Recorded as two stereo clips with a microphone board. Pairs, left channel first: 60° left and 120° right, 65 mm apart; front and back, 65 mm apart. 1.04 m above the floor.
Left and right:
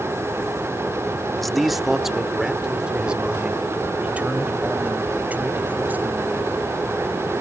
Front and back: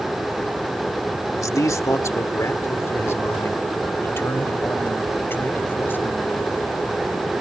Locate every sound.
1.4 s a man speaking: 25° right; by 6.6 s 60° right